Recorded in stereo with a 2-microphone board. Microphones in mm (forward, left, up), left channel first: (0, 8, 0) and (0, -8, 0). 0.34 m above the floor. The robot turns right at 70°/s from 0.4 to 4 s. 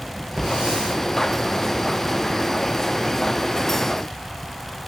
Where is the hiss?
75° right, 5.5 m; by 1.0 s 35° right, 5.5 m.